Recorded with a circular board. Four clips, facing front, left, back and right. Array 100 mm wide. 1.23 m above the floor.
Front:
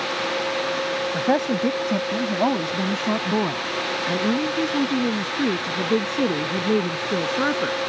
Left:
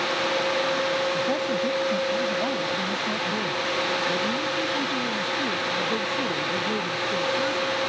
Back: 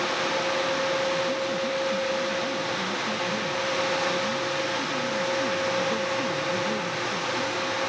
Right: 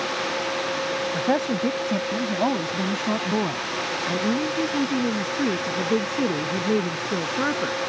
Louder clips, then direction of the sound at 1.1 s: Right 2 dB, front 5 dB; 25° right.